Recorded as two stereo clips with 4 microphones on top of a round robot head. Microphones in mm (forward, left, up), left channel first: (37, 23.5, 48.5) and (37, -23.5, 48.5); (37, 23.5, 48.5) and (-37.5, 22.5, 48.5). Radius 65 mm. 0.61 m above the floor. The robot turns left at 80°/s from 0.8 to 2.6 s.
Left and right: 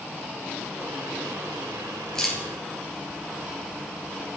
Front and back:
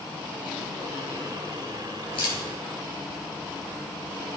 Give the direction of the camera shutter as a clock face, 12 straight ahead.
12 o'clock.